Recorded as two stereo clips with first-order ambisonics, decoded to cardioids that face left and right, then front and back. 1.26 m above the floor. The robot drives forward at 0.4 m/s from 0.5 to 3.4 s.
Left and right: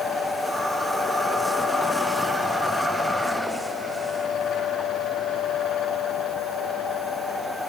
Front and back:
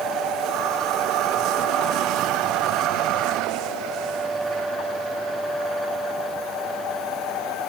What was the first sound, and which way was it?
Only background noise.